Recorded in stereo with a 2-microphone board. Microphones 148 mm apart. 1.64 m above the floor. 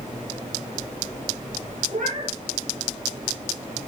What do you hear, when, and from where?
1.9 s a cat meowing: 65° right (ahead or behind), 5.5 m